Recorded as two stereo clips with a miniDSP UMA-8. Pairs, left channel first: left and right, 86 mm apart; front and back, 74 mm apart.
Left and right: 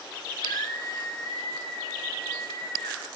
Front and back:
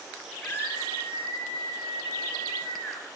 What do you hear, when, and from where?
0.4 s a scream: 60° left, 6 m